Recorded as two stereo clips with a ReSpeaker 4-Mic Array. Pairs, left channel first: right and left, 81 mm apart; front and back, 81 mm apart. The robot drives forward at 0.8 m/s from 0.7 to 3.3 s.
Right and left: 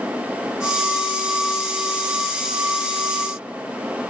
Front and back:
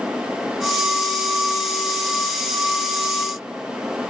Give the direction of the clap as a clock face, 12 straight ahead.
I don't hear a clap.